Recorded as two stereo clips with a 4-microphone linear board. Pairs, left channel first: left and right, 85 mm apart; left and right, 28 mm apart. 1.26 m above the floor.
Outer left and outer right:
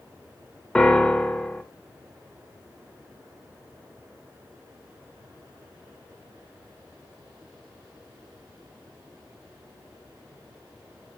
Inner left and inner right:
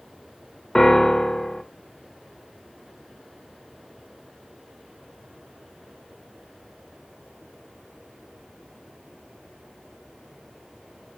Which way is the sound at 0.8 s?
10° left (ahead or behind).